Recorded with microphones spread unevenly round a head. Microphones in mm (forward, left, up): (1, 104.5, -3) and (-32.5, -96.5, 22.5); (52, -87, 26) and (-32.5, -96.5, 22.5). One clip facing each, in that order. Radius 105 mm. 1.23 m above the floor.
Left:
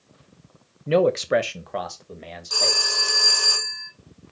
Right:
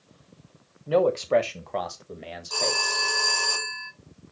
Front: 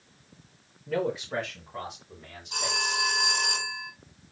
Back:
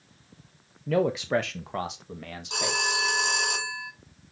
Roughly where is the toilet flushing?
No toilet flushing in this recording.